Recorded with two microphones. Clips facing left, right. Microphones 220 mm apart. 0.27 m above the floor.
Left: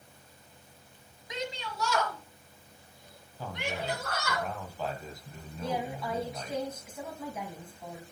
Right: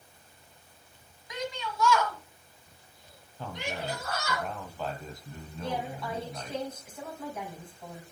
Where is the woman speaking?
5° left (ahead or behind), 2.0 m.